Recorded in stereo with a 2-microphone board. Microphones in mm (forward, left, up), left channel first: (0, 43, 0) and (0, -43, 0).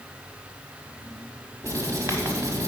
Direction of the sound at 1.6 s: 40° right (ahead or behind).